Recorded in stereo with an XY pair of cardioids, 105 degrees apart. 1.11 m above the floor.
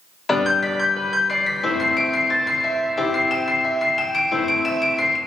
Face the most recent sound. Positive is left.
turn(degrees=30)